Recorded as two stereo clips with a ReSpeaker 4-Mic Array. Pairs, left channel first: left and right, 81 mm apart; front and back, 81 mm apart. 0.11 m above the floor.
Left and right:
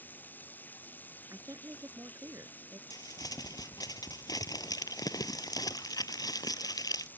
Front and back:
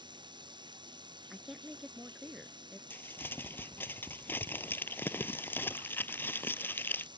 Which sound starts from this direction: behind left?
Running water, at 0.0 s.